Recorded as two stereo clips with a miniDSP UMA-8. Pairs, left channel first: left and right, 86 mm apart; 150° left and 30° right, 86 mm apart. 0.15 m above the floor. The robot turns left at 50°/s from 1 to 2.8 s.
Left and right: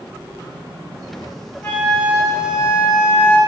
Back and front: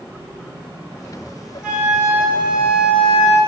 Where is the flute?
30° left, 1.0 m; by 3.4 s 30° right, 1.0 m.